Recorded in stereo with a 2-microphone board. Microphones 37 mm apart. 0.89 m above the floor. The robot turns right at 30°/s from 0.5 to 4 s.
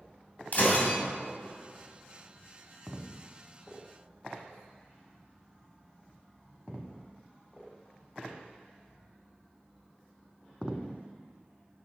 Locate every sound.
0.5 s breaking glass: 50° left (ahead or behind), 3 m; by 1.0 s 60° left (ahead or behind), 3 m